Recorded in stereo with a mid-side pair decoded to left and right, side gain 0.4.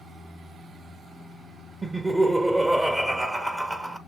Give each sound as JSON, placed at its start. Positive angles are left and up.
{"t": 1.8, "sound": "laughter", "azimuth_deg": -25, "distance_m": 0.8}